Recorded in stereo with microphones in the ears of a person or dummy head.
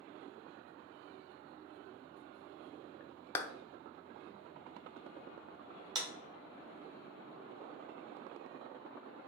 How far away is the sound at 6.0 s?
About 1.9 m.